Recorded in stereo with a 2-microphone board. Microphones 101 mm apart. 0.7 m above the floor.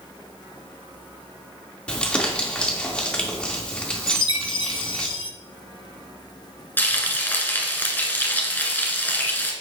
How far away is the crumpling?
About 2 m.